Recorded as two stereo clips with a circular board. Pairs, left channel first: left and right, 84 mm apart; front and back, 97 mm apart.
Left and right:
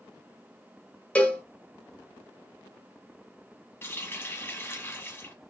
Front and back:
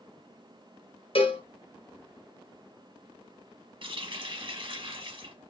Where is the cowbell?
15° left, 0.6 m.